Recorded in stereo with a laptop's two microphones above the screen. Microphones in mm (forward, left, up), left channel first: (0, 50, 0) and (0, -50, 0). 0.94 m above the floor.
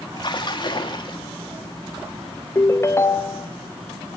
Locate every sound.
0.2 s a splash: 45° left (ahead or behind), 1.9 m
2.5 s a ringtone: 25° left (ahead or behind), 0.7 m